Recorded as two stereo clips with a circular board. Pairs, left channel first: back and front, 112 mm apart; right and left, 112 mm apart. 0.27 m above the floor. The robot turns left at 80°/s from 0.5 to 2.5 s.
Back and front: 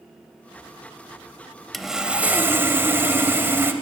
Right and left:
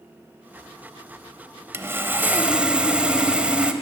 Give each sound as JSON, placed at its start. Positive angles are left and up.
{"t": 1.7, "sound": "sawing", "azimuth_deg": 90, "distance_m": 0.5}